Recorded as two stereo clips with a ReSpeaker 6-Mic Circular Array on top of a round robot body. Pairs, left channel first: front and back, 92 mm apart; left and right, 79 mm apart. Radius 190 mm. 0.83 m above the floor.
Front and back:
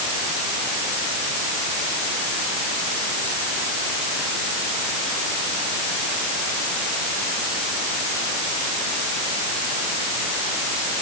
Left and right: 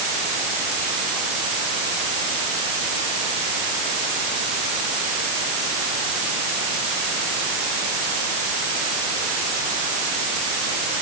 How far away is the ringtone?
No ringtone in this recording.